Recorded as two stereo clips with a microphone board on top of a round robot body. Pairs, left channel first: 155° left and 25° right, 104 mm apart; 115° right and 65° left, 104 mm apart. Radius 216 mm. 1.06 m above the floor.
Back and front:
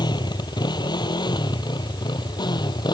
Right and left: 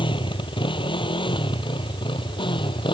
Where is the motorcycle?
155° right.